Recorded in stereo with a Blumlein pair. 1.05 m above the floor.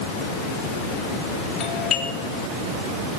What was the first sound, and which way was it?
A doorbell, 25° left.